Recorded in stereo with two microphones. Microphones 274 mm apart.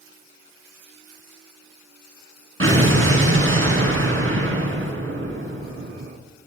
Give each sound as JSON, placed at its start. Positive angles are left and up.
{"t": 2.6, "sound": "an explosion", "side_deg": -45, "distance_m": 5.5}